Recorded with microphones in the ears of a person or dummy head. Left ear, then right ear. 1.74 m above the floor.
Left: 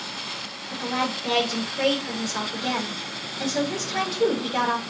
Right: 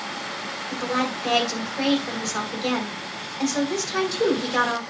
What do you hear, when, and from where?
0.7 s a woman speaking: 85° right, 7 m